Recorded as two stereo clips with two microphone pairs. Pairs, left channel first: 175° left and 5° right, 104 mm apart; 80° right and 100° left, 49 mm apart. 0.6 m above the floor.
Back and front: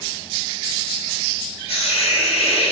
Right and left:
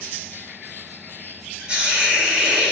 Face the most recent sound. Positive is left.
turn(degrees=170)